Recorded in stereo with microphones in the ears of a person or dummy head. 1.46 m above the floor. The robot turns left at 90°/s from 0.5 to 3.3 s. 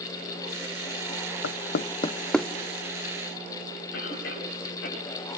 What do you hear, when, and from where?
1.4 s knocking: 80° left, 0.7 m; by 2.5 s 5° right (ahead or behind), 0.7 m
3.9 s a cough: 70° left (ahead or behind), 9.5 m